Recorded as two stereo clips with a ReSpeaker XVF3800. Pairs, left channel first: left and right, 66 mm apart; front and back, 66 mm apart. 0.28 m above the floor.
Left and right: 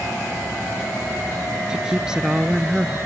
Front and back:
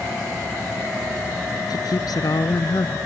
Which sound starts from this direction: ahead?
A woman speaking, at 1.7 s.